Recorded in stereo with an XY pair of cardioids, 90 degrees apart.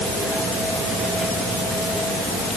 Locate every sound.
Only background noise.